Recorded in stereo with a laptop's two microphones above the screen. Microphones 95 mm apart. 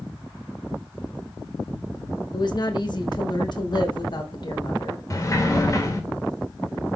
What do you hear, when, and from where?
2.3 s a woman speaking: 50° left (ahead or behind), 1.2 m
5.1 s a sliding door: 35° left (ahead or behind), 1.9 m